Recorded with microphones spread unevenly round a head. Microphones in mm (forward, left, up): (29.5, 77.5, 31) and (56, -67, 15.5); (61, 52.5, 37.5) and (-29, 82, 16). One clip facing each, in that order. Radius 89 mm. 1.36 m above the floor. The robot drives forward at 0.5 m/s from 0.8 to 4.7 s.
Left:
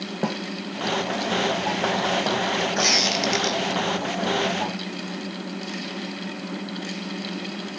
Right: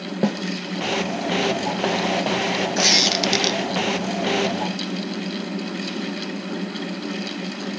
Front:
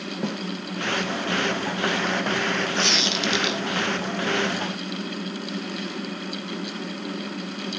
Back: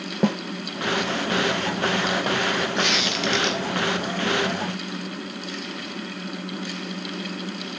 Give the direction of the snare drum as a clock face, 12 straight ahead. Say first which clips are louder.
Right 5 dB, back 8 dB; 5 o'clock.